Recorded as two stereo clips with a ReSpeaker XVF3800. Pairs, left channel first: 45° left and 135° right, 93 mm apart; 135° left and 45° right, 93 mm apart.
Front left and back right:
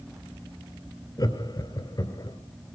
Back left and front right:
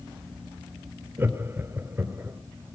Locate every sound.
1.2 s laughter: 15° left, 2.5 m